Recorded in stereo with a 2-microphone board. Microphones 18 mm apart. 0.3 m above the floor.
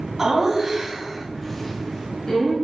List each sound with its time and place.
0.2 s laughter: 20° right (ahead or behind), 2.5 m; by 2.5 s 45° left (ahead or behind), 2 m